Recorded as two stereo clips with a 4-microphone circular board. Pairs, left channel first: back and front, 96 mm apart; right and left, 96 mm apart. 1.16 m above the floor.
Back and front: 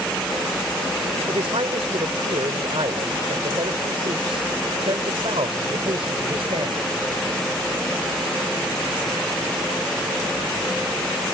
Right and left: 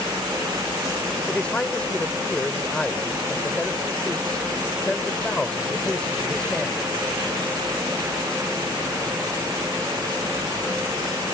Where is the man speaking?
10° right.